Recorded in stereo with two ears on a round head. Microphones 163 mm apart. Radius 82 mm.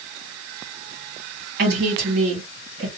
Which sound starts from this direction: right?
A woman speaking, at 1.6 s.